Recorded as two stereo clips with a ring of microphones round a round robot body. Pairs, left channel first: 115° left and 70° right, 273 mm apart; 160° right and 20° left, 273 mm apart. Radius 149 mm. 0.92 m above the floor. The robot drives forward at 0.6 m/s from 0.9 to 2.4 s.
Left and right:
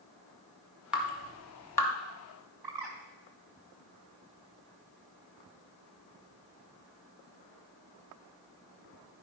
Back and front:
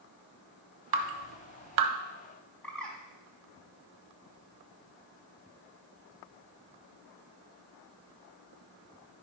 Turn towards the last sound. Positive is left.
turn(degrees=-70)